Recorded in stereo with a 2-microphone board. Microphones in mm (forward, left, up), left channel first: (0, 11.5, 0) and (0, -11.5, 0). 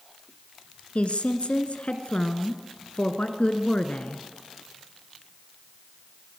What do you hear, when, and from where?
0.9 s a woman speaking: 60° left (ahead or behind), 2.5 m